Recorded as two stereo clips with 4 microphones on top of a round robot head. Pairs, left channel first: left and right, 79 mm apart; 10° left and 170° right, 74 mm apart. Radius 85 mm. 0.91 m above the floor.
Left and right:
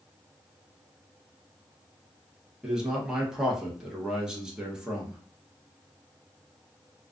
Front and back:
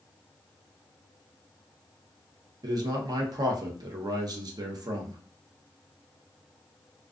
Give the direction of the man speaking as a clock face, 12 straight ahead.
6 o'clock.